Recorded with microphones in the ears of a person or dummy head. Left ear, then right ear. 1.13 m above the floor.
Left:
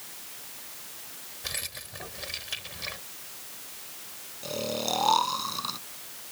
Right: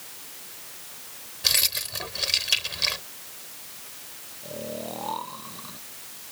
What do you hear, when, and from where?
1.4 s keys jangling: 40° right (ahead or behind)
4.4 s snoring: 60° left (ahead or behind)